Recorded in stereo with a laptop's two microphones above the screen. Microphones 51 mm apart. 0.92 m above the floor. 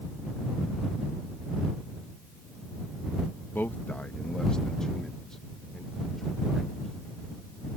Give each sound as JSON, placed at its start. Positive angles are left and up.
{"t": 3.5, "sound": "a man speaking", "side_deg": 40}